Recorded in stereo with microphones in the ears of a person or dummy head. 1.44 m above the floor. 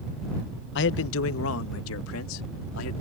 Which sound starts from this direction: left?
A man speaking, at 0.8 s.